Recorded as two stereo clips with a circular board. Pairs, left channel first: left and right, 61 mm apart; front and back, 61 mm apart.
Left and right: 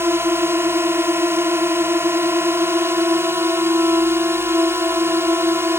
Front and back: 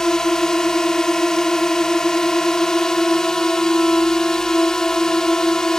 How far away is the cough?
I don't hear a cough.